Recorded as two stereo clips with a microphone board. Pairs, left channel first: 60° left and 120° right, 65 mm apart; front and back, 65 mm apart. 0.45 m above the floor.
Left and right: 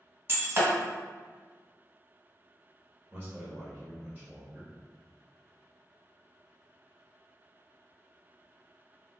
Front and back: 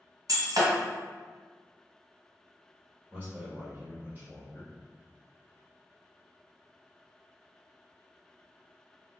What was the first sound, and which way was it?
Breaking glass, 170° right.